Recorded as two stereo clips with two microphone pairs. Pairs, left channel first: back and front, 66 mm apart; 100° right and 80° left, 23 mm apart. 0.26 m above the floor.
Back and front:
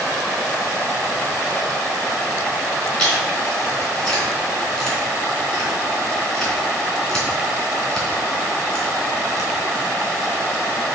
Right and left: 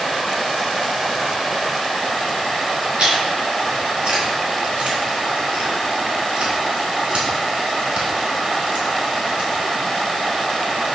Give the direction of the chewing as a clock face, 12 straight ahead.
9 o'clock.